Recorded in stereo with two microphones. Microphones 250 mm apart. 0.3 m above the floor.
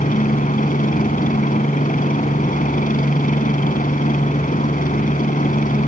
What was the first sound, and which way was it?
A helicopter, 30° left (ahead or behind).